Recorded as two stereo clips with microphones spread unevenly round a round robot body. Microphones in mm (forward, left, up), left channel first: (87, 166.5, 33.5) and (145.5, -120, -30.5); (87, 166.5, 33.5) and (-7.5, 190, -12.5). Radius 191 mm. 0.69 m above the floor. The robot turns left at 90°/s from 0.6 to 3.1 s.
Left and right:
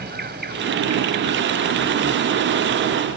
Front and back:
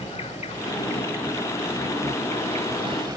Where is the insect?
20° right; by 3.2 s 115° left.